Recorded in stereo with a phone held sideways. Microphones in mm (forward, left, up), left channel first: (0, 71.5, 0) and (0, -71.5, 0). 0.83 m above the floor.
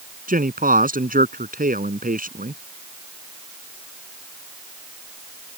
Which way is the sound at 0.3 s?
75° right (ahead or behind).